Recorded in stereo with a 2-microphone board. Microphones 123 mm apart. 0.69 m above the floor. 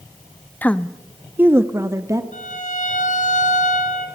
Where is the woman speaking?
15° left (ahead or behind), 0.6 m; by 2.2 s 25° right (ahead or behind), 1.1 m.